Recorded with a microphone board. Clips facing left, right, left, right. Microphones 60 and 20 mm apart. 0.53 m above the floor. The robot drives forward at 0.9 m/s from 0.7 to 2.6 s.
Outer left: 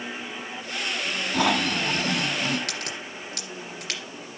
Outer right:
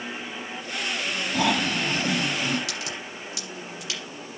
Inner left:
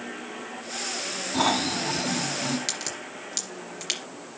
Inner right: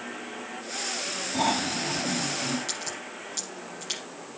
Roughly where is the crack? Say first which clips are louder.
Even, inner left 2 dB; left.